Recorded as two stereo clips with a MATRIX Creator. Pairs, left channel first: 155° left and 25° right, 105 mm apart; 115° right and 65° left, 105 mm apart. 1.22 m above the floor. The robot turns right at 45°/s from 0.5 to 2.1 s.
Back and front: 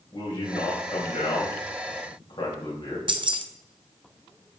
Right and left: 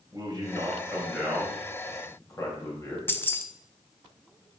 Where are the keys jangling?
45° right, 0.5 m.